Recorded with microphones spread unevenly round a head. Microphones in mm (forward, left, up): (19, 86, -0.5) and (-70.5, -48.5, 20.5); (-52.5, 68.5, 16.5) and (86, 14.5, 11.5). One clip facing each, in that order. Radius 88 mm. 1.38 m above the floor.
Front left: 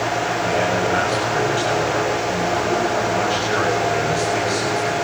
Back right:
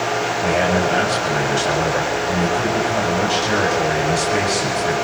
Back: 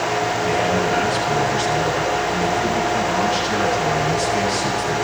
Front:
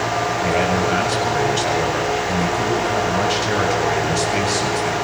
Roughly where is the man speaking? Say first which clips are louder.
Back right 3 dB, front 1 dB; ahead right.